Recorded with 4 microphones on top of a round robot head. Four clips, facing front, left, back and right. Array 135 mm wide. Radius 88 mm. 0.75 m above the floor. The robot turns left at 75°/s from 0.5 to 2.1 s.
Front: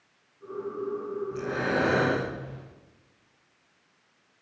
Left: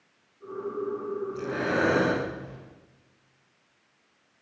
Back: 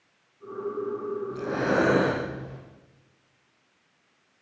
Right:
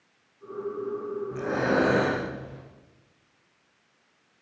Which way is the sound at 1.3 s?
110° right.